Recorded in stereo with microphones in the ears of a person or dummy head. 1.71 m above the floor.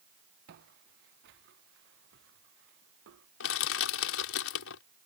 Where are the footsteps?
65° right (ahead or behind); by 3.3 s 75° right (ahead or behind).